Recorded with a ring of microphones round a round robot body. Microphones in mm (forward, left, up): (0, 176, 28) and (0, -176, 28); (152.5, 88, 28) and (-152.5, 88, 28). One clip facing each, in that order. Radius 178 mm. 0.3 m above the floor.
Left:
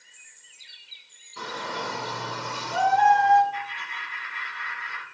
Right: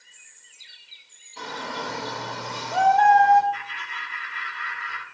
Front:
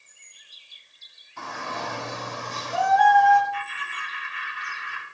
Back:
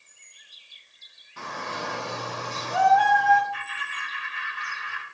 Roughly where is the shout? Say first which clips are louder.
Even, even; behind.